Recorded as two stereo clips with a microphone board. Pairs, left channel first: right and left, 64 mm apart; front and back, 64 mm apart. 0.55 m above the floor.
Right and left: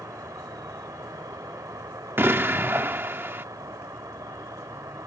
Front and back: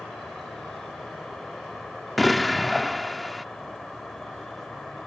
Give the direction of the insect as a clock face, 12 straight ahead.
9 o'clock.